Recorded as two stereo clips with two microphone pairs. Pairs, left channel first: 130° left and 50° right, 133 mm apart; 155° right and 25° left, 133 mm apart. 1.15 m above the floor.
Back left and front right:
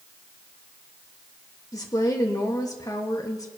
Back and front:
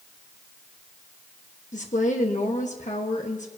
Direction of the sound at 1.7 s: 165° right.